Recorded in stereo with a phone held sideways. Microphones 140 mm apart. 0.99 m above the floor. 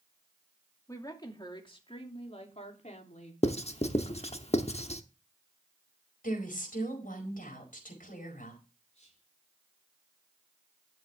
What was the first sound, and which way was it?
A woman speaking, 25° left (ahead or behind).